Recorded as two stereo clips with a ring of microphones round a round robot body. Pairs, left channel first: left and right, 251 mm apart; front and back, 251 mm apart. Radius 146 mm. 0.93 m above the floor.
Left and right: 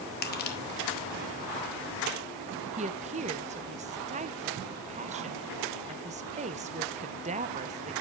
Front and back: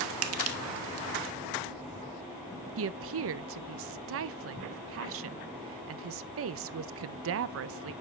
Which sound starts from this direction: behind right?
A woman speaking, at 2.8 s.